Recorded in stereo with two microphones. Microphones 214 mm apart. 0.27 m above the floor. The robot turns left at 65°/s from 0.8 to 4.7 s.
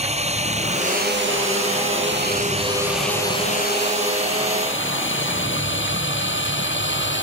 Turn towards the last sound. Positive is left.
turn(degrees=60)  # may be behind; listen again after turning